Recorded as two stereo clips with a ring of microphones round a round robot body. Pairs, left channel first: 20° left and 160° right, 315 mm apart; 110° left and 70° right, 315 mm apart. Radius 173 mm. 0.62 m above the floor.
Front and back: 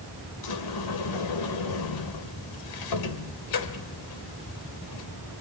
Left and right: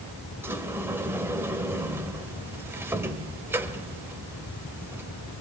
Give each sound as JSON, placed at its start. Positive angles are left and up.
{"t": 0.4, "sound": "a sliding door", "azimuth_deg": 15, "distance_m": 1.7}